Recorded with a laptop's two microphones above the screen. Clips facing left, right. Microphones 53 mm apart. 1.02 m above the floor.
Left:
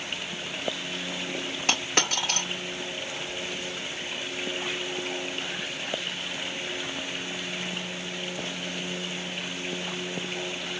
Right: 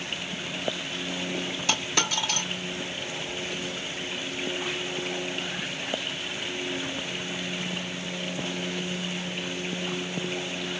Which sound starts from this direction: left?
A dropped coin, at 1.7 s.